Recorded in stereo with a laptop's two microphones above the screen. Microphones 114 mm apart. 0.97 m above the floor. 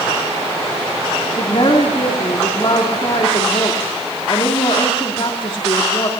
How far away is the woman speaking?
About 2.5 m.